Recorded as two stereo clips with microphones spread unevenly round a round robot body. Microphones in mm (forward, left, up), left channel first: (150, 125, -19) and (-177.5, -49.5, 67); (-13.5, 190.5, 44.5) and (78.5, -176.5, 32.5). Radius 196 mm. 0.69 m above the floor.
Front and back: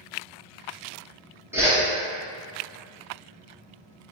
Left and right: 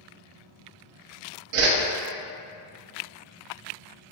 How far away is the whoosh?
About 0.6 m.